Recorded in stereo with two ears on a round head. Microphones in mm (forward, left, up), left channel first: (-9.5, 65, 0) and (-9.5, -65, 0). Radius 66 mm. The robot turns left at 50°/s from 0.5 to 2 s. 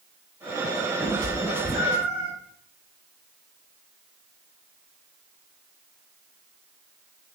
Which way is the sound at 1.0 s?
65° left (ahead or behind).